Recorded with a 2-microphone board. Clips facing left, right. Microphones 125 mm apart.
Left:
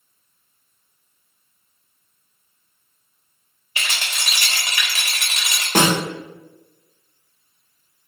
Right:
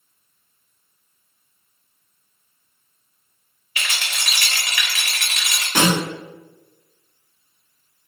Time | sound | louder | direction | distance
3.8 | a rattle | even | 30° left (ahead or behind) | 0.8 m
5.8 | a snare drum | left 1 dB | 50° left (ahead or behind) | 0.8 m